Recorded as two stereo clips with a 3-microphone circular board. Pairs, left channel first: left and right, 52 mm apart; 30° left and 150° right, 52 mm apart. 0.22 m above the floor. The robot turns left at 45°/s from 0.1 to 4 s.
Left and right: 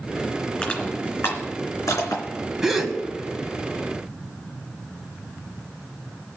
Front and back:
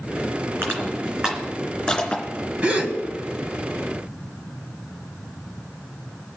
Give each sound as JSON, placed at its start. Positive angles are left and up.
{"t": 0.6, "sound": "crushing", "azimuth_deg": 165, "distance_m": 3.0}
{"t": 2.6, "sound": "a gasp", "azimuth_deg": -160, "distance_m": 1.6}